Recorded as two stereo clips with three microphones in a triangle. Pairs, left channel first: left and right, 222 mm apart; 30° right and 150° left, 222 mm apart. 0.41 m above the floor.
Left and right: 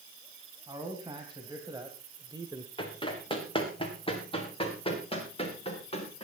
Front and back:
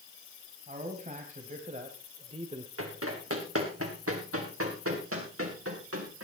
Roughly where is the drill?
No drill in this recording.